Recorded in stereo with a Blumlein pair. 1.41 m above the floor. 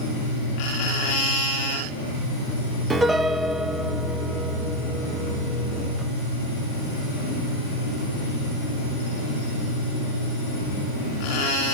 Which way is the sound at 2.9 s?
10° right.